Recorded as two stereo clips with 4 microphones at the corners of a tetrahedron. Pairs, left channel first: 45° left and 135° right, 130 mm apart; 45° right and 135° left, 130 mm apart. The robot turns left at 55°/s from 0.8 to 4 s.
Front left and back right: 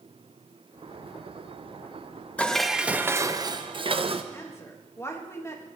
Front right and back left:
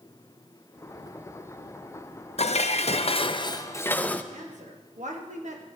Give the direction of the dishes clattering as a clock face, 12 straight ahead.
1 o'clock.